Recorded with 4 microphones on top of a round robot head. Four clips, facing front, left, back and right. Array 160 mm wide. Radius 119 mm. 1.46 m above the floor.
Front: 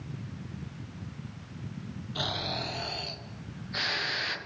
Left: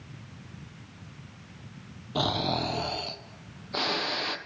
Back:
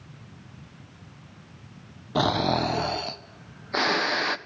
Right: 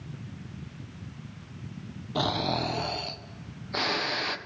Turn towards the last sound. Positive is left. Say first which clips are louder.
# even, back 13 dB
turn(degrees=175)